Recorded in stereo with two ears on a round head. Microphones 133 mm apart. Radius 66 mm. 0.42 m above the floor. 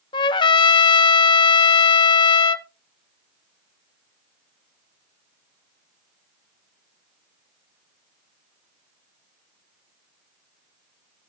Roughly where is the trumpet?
Left.